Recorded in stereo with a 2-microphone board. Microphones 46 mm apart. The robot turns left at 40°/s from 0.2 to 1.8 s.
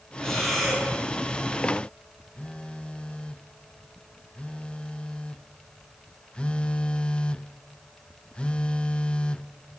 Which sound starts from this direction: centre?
Breathing, at 0.2 s.